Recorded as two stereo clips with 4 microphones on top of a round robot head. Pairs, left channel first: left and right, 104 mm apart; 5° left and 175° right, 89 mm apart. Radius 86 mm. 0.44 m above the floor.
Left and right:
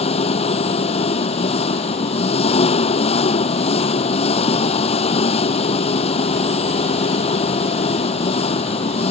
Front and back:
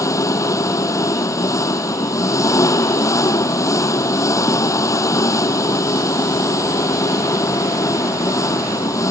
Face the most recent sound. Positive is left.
turn(degrees=60)